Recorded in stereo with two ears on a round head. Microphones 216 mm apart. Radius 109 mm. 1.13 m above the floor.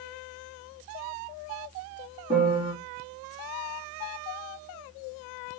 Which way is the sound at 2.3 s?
20° right (ahead or behind).